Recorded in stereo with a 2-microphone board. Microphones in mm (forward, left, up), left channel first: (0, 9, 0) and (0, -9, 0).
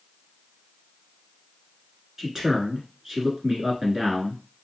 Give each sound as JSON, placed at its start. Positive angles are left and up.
{"t": 2.2, "sound": "a man speaking", "side_deg": -20, "distance_m": 1.1}